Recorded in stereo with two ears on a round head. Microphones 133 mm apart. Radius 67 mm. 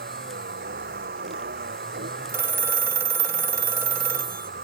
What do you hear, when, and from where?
0.0 s a vehicle: 65° right (ahead or behind)
2.3 s a phone ringing: 20° right (ahead or behind)